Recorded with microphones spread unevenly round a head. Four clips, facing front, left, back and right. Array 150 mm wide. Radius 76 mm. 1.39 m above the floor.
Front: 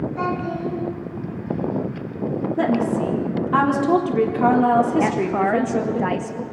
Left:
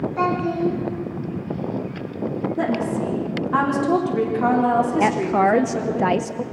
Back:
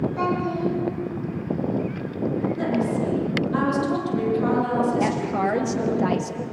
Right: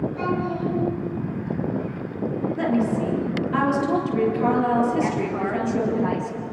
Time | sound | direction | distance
0.2 | a child speaking | 90° left | 8 m
2.6 | a woman speaking | 25° left | 4 m
5.0 | a woman speaking | 85° left | 0.6 m